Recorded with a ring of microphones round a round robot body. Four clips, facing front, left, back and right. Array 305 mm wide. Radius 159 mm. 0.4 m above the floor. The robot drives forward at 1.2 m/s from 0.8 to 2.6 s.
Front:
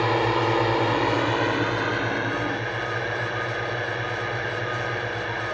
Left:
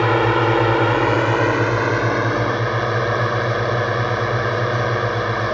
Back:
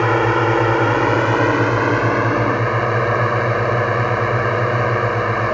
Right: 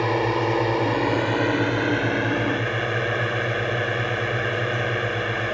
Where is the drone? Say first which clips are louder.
Left 5 dB, back 6 dB; 145° left; by 5.5 s 160° left.